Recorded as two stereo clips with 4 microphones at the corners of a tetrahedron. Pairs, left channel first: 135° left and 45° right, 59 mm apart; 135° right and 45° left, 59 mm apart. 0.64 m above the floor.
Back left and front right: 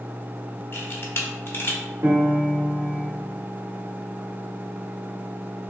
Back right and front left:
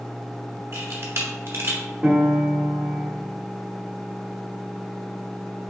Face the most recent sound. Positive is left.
turn(degrees=-20)